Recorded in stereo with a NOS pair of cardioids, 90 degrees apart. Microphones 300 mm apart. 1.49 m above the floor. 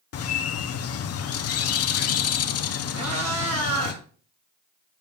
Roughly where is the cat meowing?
Ahead right.